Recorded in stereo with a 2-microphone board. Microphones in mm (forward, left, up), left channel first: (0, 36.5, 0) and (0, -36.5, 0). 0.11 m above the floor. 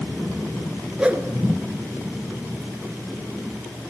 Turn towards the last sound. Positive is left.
turn(degrees=-20)  # may be behind; listen again after turning